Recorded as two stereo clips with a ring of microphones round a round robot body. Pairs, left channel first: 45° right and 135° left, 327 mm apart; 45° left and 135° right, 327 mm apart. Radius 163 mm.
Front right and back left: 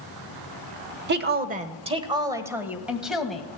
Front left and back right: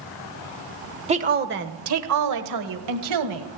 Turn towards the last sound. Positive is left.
turn(degrees=-135)